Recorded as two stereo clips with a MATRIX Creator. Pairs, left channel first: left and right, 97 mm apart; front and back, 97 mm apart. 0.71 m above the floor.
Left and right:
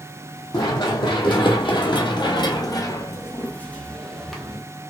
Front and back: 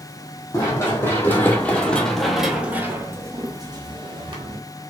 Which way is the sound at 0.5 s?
55° left.